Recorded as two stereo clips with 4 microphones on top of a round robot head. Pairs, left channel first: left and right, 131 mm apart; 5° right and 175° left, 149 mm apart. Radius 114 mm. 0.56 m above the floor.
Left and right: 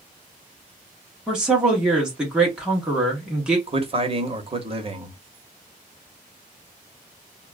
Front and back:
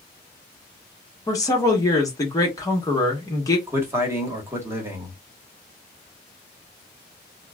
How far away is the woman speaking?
About 1.1 m.